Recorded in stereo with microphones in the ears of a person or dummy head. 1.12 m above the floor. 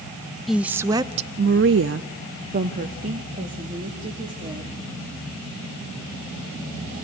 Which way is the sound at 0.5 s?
5° left (ahead or behind).